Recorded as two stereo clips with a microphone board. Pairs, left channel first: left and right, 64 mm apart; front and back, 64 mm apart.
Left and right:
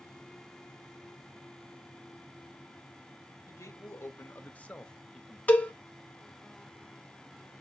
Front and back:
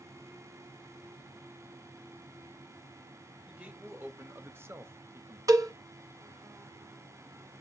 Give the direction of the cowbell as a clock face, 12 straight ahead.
7 o'clock.